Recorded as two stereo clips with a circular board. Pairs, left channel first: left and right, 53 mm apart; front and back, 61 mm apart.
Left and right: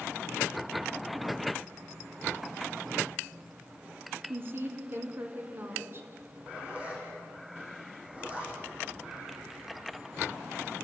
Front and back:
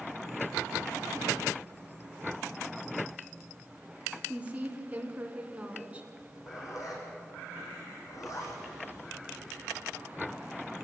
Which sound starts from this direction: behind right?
A woman speaking, at 4.3 s.